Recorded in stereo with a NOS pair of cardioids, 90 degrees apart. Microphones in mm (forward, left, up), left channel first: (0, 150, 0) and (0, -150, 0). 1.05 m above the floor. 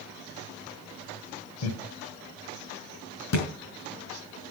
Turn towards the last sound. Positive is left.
turn(degrees=65)